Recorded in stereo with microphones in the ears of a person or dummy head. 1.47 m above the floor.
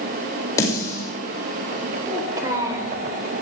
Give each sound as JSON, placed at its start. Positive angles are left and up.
{"t": 0.6, "sound": "a snare drum", "side_deg": 15, "distance_m": 7.0}
{"t": 2.0, "sound": "a child speaking", "side_deg": -25, "distance_m": 4.5}